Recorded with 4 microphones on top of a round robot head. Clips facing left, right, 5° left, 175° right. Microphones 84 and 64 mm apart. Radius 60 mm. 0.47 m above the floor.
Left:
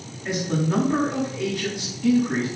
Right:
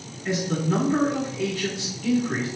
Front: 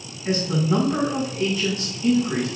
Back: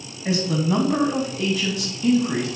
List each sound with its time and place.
0.2 s a man speaking: 170° left, 3.5 m